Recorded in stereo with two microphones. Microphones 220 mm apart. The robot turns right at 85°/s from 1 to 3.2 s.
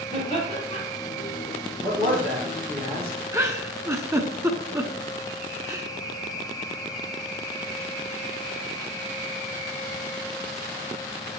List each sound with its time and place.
0.1 s laughter: 35° left (ahead or behind), 4.5 m
1.8 s a man speaking: 130° right, 4.5 m; by 3.2 s 15° right, 4.5 m
3.3 s a giggle: 15° right (ahead or behind), 0.8 m